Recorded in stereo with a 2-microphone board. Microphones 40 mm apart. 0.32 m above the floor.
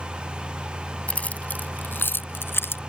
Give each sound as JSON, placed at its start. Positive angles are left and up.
{"t": 1.1, "sound": "keys jangling", "side_deg": 30}